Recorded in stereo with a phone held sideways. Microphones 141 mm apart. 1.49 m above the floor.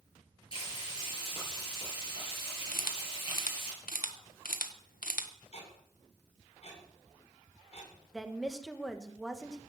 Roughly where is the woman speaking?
Centre.